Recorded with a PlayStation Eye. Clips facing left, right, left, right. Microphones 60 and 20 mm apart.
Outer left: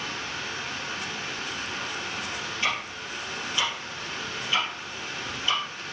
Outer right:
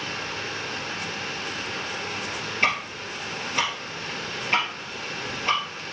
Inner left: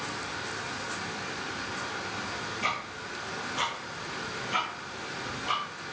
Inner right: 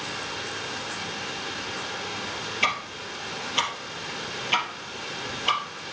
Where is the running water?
65° right (ahead or behind), 2.5 m.